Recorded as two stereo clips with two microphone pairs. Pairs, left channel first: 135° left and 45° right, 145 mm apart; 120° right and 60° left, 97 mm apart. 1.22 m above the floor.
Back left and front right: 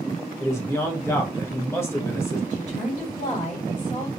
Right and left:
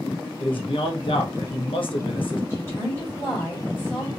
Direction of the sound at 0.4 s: 150° right.